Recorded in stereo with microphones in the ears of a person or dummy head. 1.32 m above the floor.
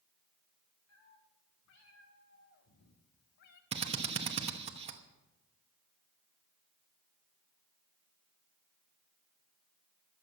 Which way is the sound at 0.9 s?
75° left (ahead or behind).